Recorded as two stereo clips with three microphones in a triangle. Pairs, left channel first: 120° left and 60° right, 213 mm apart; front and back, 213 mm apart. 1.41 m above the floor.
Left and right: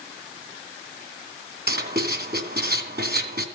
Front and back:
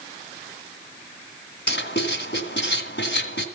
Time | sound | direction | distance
1.7 | writing | 25° right | 2.5 m